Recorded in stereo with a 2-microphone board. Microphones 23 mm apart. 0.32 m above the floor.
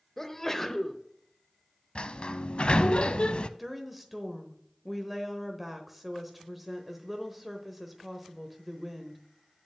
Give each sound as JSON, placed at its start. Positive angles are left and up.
{"t": 0.2, "sound": "a sneeze", "side_deg": 15, "distance_m": 1.0}
{"t": 1.9, "sound": "a sliding door", "side_deg": 55, "distance_m": 0.5}
{"t": 3.6, "sound": "a woman speaking", "side_deg": -5, "distance_m": 1.1}